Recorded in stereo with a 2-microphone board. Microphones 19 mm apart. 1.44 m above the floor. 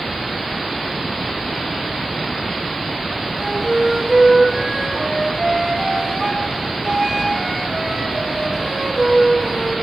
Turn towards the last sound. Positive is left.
turn(degrees=-15)  # may be behind; listen again after turning